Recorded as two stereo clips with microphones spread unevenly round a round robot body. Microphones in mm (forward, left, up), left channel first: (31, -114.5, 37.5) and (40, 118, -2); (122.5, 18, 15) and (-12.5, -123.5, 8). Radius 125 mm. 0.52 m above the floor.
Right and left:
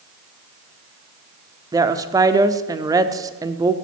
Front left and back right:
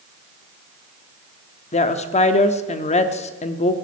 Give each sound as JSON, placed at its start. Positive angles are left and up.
{"t": 1.7, "sound": "a woman speaking", "azimuth_deg": 50, "distance_m": 0.9}